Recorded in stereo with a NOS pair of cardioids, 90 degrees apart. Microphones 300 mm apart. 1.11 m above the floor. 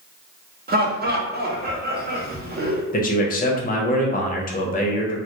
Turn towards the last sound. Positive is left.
turn(degrees=30)